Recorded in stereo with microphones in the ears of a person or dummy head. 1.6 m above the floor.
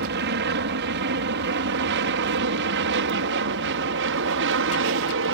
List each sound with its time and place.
0.0 s an aircraft: 60° right (ahead or behind); by 5.3 s 65° right (ahead or behind)